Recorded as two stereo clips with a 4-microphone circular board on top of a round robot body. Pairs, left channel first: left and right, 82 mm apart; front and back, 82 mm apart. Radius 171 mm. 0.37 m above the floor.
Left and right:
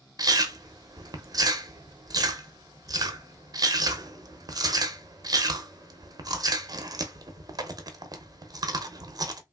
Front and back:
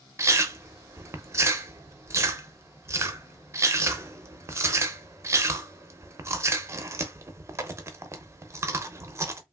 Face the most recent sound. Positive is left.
turn(degrees=-125)